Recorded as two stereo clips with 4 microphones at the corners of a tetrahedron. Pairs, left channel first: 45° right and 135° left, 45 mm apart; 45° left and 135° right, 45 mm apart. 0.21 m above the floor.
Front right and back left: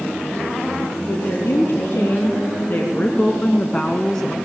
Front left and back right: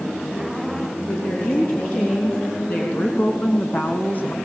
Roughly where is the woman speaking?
Ahead.